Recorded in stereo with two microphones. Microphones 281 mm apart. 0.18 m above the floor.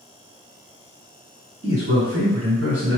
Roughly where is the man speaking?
Right.